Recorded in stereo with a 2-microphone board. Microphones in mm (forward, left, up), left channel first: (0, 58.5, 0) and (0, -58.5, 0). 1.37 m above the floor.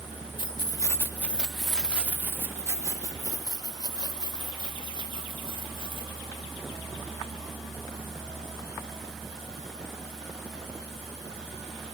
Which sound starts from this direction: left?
Keys jangling, at 0.4 s.